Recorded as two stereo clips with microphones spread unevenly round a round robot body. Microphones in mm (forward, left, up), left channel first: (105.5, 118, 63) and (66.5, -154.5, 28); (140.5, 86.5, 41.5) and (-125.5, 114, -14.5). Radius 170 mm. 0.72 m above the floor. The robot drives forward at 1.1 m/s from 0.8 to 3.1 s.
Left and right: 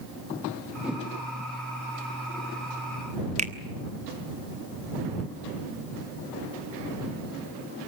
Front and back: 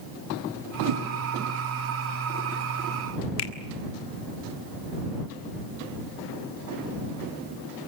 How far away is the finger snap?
About 1.4 m.